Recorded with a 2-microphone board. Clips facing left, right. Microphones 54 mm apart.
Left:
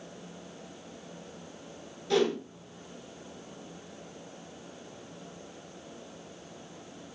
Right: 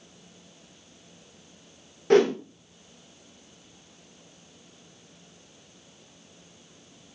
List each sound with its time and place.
2.1 s a whoosh: 55° right (ahead or behind), 0.5 m